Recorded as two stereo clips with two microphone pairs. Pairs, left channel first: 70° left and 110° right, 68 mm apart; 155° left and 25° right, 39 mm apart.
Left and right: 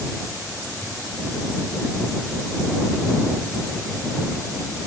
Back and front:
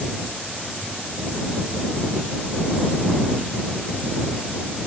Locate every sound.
Only background noise.